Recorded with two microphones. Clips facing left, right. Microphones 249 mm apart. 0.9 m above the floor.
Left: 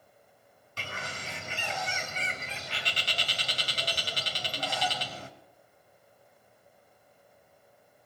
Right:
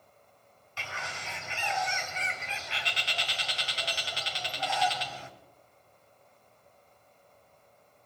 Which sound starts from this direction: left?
A bird, at 0.8 s.